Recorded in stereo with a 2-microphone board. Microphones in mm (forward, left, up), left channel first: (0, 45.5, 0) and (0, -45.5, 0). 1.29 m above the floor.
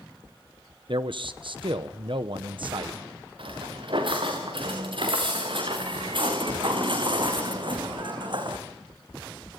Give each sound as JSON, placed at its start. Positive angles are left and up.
{"t": 0.9, "sound": "a man speaking", "side_deg": -60, "distance_m": 0.9}
{"t": 3.4, "sound": "footsteps", "side_deg": -65, "distance_m": 6.5}